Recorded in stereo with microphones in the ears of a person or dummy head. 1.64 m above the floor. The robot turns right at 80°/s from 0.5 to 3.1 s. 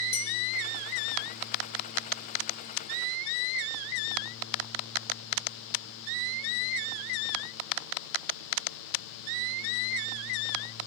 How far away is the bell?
About 5.5 m.